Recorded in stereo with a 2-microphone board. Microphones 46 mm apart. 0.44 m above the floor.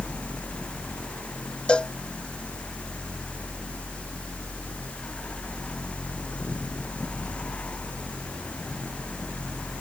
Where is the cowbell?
25° left (ahead or behind).